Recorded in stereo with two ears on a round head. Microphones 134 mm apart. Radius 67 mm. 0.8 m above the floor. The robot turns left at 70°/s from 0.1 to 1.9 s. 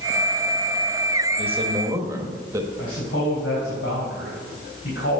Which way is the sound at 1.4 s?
115° right.